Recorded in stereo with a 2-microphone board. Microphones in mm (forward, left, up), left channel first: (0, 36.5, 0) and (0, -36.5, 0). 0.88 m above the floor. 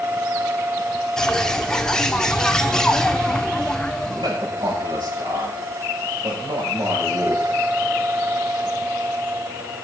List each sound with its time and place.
1.2 s a bird: 10° left (ahead or behind), 1.0 m
4.0 s a man speaking: 75° right (ahead or behind), 5.5 m